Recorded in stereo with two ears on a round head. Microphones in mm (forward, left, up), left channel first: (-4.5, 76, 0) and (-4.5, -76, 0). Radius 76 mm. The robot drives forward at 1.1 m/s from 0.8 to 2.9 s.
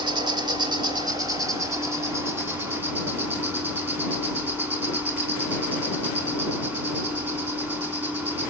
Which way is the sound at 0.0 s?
25° right (ahead or behind).